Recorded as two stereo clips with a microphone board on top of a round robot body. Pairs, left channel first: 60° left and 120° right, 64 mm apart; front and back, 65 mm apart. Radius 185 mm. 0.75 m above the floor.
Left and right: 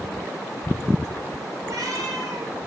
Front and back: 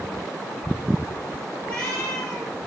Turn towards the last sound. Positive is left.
turn(degrees=-75)